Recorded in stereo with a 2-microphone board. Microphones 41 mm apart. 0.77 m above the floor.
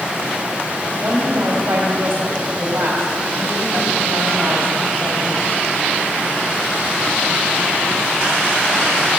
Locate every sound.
1.0 s a woman speaking: 65° right (ahead or behind), 2 m